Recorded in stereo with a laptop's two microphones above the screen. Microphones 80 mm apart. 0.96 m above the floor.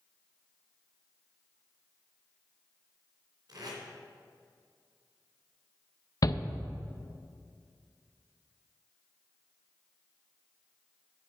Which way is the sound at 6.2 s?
50° left (ahead or behind).